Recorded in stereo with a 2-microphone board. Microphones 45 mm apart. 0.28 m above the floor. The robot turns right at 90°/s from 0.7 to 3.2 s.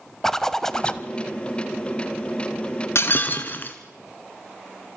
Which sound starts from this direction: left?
Breaking glass, at 3.0 s.